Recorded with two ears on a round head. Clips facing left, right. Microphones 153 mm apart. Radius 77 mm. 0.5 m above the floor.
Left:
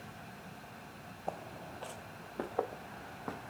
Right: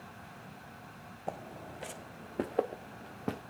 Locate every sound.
1.3 s footsteps: 10° right (ahead or behind), 1.3 m; by 3.4 s 35° right (ahead or behind), 2.5 m